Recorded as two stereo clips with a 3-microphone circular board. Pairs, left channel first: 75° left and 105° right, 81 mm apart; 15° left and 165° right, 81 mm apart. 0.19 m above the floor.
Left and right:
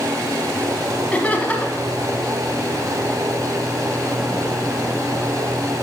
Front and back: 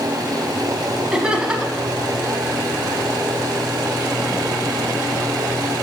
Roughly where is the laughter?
Behind left.